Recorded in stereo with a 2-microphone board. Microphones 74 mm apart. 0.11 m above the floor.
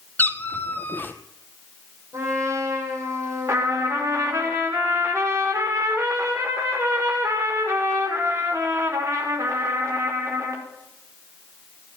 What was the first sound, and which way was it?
A cat meowing, 25° left (ahead or behind).